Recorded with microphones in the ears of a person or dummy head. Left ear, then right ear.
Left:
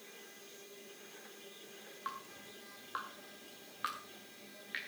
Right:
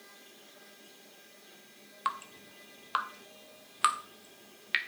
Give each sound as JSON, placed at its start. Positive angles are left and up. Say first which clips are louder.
{"t": 2.0, "sound": "dripping", "louder": "right 10 dB", "side_deg": -25, "distance_m": 0.6}